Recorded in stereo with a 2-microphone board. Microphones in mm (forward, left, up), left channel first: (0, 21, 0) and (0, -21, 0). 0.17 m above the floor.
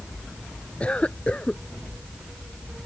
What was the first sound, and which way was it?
A cough, 30° left (ahead or behind).